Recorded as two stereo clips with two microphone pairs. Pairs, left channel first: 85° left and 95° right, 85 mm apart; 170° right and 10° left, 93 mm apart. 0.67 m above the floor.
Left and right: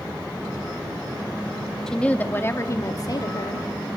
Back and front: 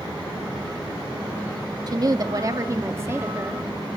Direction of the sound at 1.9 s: 5° left.